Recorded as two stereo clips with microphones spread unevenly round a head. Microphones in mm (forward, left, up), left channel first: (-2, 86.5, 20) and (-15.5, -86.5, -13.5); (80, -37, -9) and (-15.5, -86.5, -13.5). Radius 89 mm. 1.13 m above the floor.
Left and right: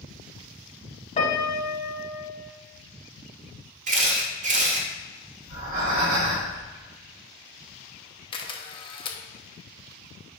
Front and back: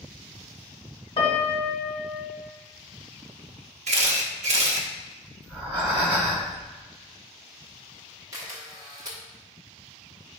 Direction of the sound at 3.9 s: 145° right.